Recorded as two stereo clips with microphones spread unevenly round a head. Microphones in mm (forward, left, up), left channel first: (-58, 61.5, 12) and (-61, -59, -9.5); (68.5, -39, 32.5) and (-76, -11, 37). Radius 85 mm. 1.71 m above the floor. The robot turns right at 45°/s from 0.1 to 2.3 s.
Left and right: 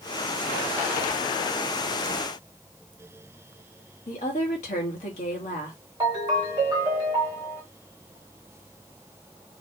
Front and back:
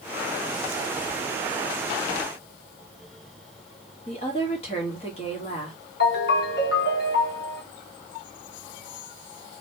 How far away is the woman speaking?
About 1.1 m.